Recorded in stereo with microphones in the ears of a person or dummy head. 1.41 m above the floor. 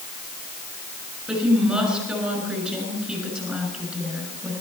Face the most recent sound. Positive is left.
turn(degrees=0)  # may be behind; listen again after turning